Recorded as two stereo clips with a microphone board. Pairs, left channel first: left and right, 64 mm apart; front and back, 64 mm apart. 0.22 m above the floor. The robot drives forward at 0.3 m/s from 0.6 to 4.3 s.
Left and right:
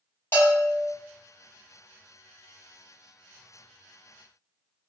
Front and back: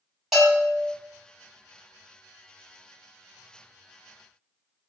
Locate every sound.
0.3 s a bell: 95° left, 1.9 m; by 0.9 s 100° left, 1.9 m